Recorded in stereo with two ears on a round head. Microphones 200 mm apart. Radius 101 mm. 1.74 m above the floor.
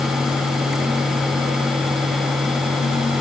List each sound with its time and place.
Only background noise.